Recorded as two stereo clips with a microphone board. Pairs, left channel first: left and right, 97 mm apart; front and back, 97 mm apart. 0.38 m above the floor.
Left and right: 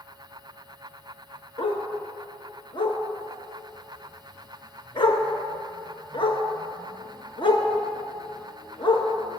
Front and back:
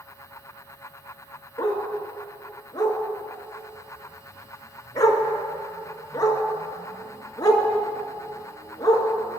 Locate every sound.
1.6 s a dog barking: 55° left, 1.6 m